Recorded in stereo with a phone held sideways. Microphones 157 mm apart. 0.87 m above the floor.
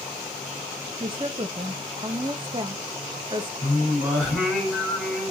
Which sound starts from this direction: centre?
Singing, at 3.6 s.